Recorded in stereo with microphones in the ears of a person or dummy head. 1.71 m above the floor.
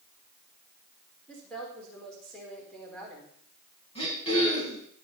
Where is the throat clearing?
35° left (ahead or behind), 5 m.